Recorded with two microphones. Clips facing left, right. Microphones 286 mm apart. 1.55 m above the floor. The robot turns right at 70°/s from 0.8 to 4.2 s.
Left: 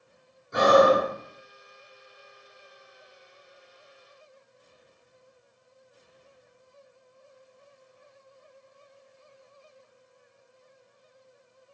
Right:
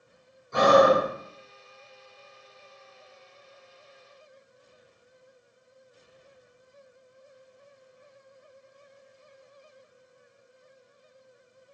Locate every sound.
0.5 s breathing: 15° left (ahead or behind), 1.1 m; by 1.1 s 20° left (ahead or behind), 1.1 m